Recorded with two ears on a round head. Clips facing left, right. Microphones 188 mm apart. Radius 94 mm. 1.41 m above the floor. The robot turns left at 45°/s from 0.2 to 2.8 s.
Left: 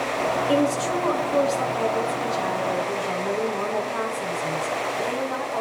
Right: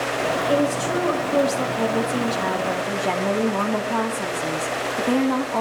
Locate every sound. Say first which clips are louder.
0.5 s a woman speaking: right 1 dB; 10° left, 4 m; by 5.6 s 95° right, 4 m